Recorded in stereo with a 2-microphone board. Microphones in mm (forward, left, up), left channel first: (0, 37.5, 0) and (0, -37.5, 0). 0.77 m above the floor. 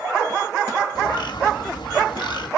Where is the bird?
85° left, 2 m.